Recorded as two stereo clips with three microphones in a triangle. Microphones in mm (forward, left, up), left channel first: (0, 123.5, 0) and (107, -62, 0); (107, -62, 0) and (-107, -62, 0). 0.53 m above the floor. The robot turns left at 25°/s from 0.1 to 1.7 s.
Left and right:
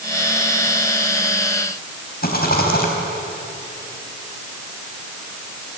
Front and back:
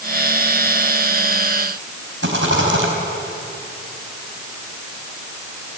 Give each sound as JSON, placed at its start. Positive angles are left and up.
{"t": 2.2, "sound": "a rattle", "azimuth_deg": 160, "distance_m": 4.0}